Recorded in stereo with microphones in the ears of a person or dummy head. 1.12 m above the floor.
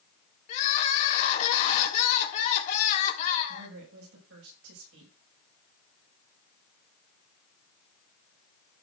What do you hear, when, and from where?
0.5 s crying: 40° left (ahead or behind), 2.5 m
3.5 s a woman speaking: 80° right, 5.5 m